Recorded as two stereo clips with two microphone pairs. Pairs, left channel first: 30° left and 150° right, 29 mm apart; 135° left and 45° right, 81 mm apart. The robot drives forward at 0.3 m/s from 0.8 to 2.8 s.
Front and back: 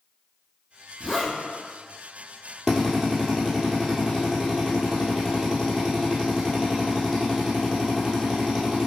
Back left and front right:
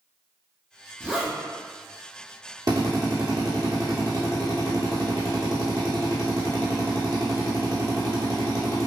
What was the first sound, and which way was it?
A zipper, 95° right.